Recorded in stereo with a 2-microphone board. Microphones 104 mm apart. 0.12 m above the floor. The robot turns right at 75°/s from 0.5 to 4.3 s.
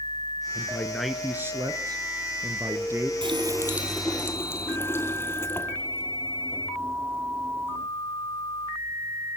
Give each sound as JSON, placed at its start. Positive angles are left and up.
{"t": 0.6, "sound": "a man speaking", "azimuth_deg": 145, "distance_m": 2.0}
{"t": 3.2, "sound": "a running tap", "azimuth_deg": -60, "distance_m": 2.0}